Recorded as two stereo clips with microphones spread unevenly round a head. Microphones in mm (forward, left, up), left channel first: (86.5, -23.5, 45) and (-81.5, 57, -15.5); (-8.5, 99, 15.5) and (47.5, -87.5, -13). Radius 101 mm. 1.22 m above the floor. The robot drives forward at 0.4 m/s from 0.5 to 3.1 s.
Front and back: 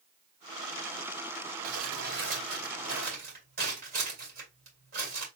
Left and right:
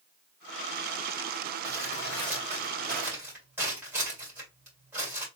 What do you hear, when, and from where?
1.6 s crumpling: 150° right, 2.5 m; by 5.3 s 155° right, 3 m